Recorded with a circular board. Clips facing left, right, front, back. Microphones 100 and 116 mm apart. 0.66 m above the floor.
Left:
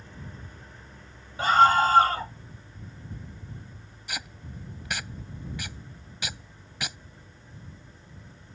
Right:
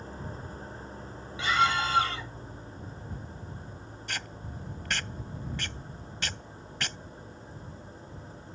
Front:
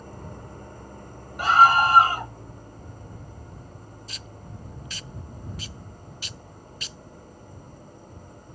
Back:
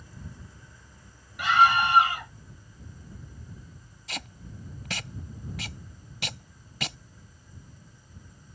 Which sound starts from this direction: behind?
Tape being pulled, at 4.1 s.